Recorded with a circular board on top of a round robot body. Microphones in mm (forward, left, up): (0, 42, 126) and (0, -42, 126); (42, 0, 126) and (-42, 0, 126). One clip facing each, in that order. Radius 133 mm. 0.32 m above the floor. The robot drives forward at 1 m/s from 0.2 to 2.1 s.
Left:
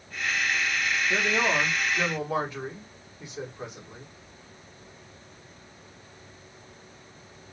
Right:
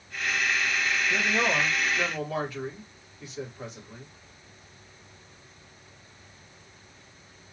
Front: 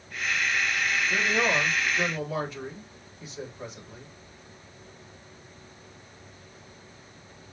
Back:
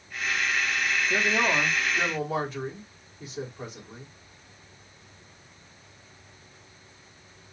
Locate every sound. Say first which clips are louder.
1.1 s a man speaking: left 2 dB, back 1 dB; 130° left, 1.5 m; by 4.1 s 160° left, 2 m